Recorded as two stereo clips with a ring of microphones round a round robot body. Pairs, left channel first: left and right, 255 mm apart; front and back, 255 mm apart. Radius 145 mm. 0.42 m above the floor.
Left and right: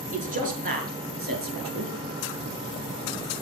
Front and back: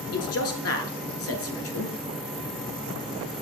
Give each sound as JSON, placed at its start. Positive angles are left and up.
{"t": 0.1, "sound": "a man speaking", "azimuth_deg": -25, "distance_m": 7.0}